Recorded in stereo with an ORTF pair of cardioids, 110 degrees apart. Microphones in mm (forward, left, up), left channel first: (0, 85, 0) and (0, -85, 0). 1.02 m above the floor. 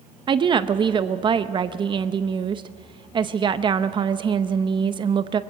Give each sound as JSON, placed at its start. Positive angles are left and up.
{"t": 0.3, "sound": "a woman speaking", "azimuth_deg": -30, "distance_m": 0.7}